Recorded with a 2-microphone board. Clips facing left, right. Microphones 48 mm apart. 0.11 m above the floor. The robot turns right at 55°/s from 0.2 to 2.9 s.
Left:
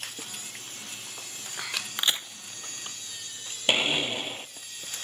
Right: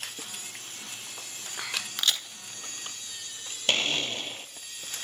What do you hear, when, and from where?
2.0 s a crack: 20° left (ahead or behind), 1.0 m; by 2.3 s 25° left (ahead or behind), 1.0 m
3.7 s a blender: 15° left (ahead or behind), 0.6 m